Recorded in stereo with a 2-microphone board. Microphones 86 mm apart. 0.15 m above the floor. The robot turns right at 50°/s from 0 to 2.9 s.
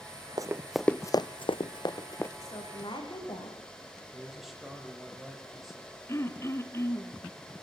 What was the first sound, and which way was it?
Running footsteps, 45° right (ahead or behind).